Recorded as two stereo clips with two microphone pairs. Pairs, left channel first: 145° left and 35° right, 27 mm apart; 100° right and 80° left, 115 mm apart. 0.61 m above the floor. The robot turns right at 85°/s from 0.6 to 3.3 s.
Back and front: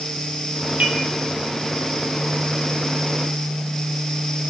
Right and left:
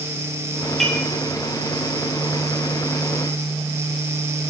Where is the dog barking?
I don't hear a dog barking.